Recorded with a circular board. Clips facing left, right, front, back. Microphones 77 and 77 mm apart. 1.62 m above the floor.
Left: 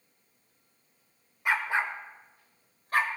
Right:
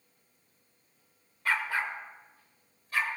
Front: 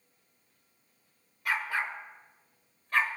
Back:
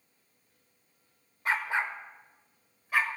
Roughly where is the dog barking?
Behind left.